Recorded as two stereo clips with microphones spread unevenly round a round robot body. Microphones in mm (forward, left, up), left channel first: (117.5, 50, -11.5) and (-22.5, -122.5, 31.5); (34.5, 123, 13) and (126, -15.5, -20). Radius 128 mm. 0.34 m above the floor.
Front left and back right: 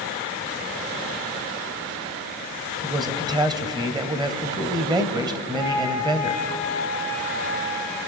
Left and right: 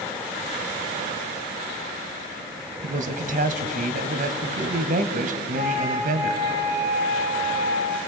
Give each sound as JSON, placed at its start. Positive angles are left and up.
{"t": 2.8, "sound": "a man speaking", "azimuth_deg": -55, "distance_m": 2.0}
{"t": 5.5, "sound": "a flute", "azimuth_deg": 140, "distance_m": 8.0}